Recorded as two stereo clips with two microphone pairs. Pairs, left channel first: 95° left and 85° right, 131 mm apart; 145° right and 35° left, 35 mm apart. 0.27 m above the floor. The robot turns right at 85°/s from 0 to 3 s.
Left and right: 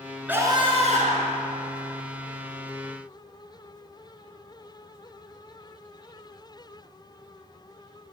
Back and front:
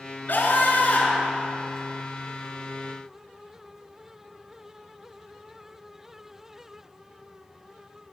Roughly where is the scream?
Behind.